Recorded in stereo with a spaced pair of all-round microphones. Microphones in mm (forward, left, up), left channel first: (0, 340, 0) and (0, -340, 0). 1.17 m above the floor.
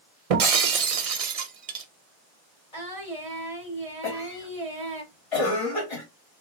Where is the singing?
55° left (ahead or behind), 2.5 m.